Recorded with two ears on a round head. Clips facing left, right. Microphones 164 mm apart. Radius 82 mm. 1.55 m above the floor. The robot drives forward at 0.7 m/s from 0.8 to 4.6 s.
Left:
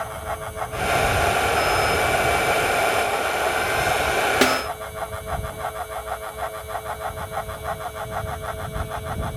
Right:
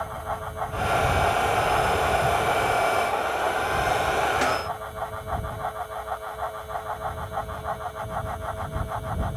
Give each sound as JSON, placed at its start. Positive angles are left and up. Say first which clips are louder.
{"t": 4.4, "sound": "a snare drum", "louder": "left 5 dB", "side_deg": 75}